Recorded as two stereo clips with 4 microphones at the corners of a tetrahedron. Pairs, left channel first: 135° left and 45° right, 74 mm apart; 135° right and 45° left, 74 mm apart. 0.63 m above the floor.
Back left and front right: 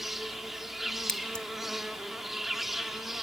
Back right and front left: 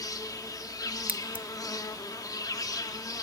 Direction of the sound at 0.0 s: 130° right.